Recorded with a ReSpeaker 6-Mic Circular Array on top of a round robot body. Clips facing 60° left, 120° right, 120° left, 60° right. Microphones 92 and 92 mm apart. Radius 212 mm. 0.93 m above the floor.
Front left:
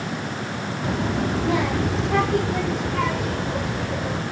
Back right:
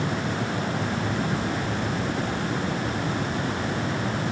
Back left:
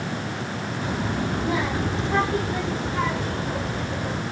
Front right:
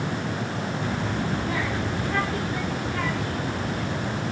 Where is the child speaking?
45° left; by 4.2 s 55° left.